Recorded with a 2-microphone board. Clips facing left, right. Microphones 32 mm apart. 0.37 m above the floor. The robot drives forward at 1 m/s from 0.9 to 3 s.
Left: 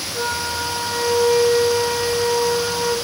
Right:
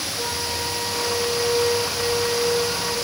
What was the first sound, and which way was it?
A flute, 65° left (ahead or behind).